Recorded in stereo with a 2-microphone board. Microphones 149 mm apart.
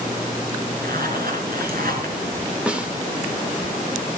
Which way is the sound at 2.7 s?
5° right (ahead or behind).